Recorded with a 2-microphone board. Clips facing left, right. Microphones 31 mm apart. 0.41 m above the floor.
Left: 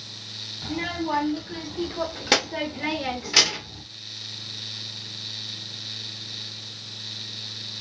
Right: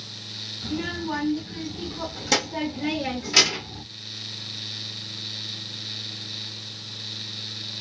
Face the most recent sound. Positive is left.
turn(degrees=-15)  # may be behind; listen again after turning